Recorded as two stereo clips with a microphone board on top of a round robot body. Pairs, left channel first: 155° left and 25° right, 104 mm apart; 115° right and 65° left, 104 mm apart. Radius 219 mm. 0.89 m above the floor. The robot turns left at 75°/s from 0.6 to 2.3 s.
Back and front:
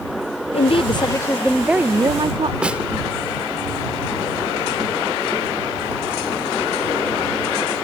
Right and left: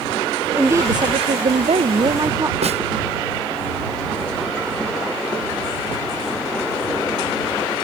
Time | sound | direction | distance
0.5 | a woman speaking | 140° left | ?
2.6 | a snare drum | 55° left | ?